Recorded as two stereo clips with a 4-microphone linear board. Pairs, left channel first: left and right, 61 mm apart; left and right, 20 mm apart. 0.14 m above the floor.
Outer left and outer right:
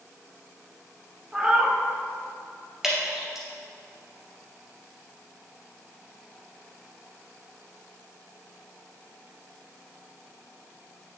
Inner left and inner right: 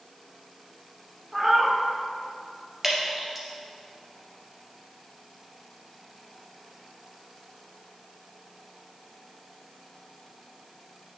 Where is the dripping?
5° right (ahead or behind), 2 m.